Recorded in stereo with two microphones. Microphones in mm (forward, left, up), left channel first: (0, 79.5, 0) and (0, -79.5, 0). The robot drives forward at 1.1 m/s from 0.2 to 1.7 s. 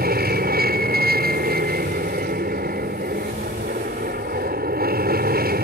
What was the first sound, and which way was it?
An aircraft, 65° right (ahead or behind).